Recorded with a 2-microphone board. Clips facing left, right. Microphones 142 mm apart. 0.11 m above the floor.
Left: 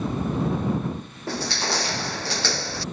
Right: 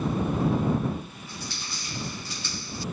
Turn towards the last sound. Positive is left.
turn(degrees=80)